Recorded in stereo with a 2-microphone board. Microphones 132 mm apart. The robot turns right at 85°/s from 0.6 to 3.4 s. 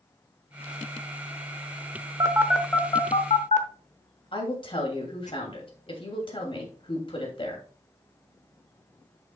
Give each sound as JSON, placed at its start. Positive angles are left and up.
{"t": 2.2, "sound": "a phone buzzing", "side_deg": -35, "distance_m": 0.9}
{"t": 4.3, "sound": "a woman speaking", "side_deg": 40, "distance_m": 2.5}